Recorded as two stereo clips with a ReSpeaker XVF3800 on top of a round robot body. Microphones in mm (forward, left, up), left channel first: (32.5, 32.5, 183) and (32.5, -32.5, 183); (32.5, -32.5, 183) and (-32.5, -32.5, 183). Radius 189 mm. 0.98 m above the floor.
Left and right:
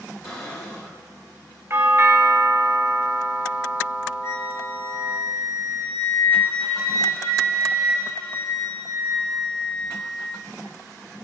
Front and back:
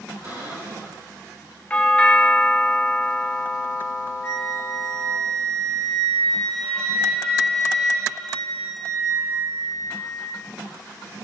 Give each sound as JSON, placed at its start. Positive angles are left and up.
{"t": 0.2, "sound": "a cupboard door", "azimuth_deg": 125, "distance_m": 1.7}
{"t": 1.7, "sound": "a doorbell", "azimuth_deg": -65, "distance_m": 0.8}
{"t": 4.2, "sound": "a flute", "azimuth_deg": 60, "distance_m": 2.5}